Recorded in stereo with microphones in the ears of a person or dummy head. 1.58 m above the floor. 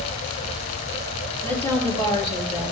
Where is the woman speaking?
10° left (ahead or behind), 3 m; by 2.7 s 45° left (ahead or behind), 3.5 m.